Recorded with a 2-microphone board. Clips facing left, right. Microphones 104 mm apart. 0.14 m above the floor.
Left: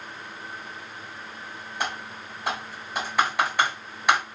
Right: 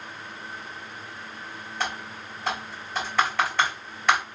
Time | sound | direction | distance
1.8 | typing on a keyboard | 15° left (ahead or behind) | 2.5 m